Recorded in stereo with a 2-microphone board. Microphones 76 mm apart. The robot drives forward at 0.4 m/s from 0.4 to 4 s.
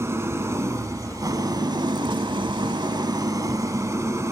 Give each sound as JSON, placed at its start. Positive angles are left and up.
{"t": 0.0, "sound": "an engine running", "side_deg": -40, "distance_m": 1.0}